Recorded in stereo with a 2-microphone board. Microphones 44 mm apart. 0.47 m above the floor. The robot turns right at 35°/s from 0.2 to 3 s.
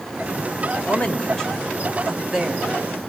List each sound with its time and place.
0.8 s a woman speaking: 30° left (ahead or behind), 1.6 m; by 2.7 s 25° right (ahead or behind), 1.6 m